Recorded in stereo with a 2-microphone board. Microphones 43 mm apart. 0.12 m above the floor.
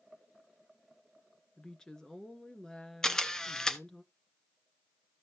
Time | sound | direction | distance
1.6 | a woman speaking | 15° left (ahead or behind) | 1.3 m
3.0 | a camera shutter | 15° left (ahead or behind) | 0.9 m